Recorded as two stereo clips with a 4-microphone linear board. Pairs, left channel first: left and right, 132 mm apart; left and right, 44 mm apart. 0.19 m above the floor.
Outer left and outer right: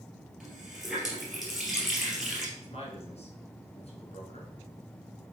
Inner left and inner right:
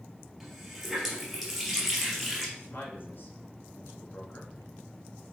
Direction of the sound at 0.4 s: Centre (ahead or behind).